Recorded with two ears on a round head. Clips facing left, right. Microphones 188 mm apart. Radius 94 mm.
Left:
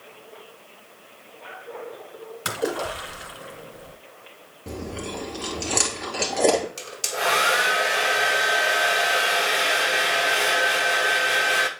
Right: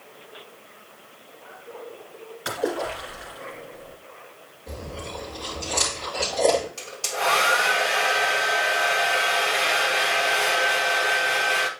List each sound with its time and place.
2.5 s a splash: 55° left (ahead or behind), 2 m
4.7 s chewing: 75° left (ahead or behind), 3 m
6.8 s a hair dryer: 20° left (ahead or behind), 1.1 m